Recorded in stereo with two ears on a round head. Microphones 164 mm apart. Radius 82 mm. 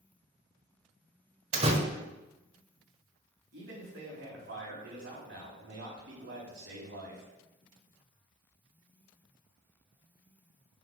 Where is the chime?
No chime in this recording.